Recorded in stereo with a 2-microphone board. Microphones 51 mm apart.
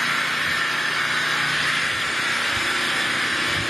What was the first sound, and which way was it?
An engine running, centre (ahead or behind).